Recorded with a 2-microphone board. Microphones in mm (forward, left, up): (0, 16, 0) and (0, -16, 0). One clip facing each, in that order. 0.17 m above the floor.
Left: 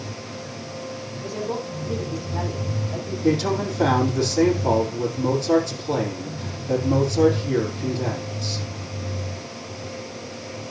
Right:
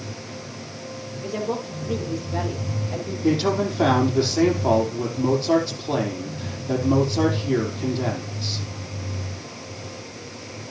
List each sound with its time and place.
1.2 s a woman speaking: 45° right (ahead or behind), 5 m; by 3.1 s 55° right (ahead or behind), 5.5 m
3.2 s a man speaking: 25° right (ahead or behind), 5 m